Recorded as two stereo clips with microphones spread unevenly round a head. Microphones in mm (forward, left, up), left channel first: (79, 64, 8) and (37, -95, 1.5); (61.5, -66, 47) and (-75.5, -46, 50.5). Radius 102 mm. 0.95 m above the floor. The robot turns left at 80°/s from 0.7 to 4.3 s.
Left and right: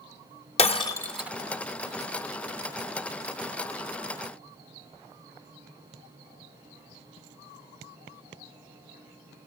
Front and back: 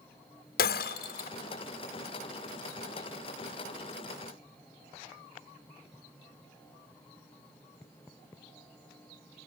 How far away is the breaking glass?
About 1.7 m.